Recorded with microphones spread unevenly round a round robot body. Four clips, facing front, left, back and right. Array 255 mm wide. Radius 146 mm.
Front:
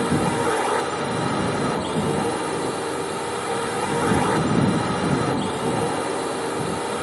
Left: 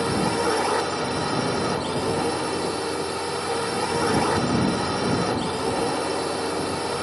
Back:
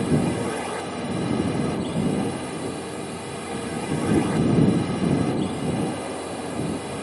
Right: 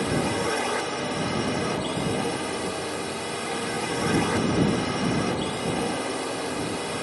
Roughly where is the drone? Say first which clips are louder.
Left 3 dB, front 2 dB; ahead left.